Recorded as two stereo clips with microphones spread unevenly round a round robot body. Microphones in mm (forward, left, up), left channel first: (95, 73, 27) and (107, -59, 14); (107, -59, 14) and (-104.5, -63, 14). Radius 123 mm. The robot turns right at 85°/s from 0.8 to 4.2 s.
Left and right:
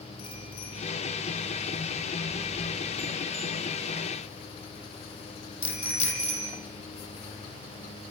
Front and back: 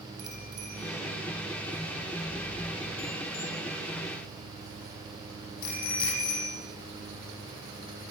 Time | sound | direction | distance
0.2 | a bicycle bell | 130° left | 10 m